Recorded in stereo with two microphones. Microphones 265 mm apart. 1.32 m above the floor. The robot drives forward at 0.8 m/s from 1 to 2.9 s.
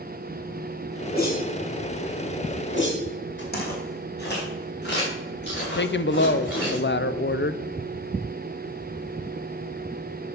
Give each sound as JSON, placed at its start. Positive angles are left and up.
{"t": 1.1, "sound": "a whoosh", "side_deg": 40, "distance_m": 5.0}
{"t": 3.5, "sound": "footsteps", "side_deg": 40, "distance_m": 3.5}
{"t": 5.8, "sound": "a woman speaking", "side_deg": 45, "distance_m": 0.6}